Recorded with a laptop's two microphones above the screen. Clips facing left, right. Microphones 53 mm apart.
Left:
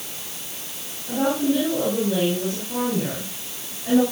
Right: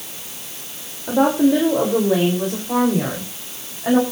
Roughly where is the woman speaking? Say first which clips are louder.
Right 6 dB; right.